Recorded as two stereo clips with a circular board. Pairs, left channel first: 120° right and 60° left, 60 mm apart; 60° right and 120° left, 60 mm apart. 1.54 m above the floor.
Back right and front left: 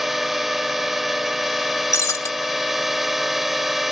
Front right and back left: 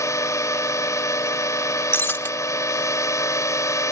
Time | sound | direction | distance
0.0 | a drone | 25° right | ?
1.9 | breaking glass | 105° right | ?